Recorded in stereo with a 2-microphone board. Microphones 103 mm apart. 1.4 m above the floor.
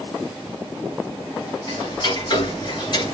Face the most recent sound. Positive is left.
turn(degrees=45)  # may be behind; listen again after turning